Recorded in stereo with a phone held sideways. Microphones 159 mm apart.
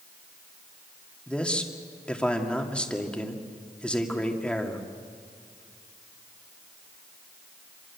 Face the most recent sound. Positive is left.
turn(degrees=5)  # may be behind; listen again after turning